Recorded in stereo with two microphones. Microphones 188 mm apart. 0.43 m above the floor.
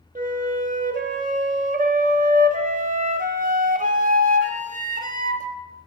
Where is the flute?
45° right (ahead or behind), 0.6 m.